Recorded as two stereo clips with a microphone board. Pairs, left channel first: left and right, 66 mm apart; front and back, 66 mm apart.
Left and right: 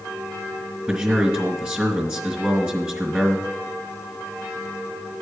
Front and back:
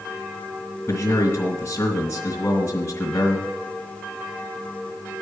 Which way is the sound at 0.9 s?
20° right.